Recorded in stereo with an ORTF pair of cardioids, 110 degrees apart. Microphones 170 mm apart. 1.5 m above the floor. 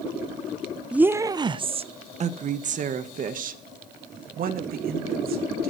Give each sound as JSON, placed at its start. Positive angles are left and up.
{"t": 0.9, "sound": "a woman speaking", "azimuth_deg": -5, "distance_m": 0.7}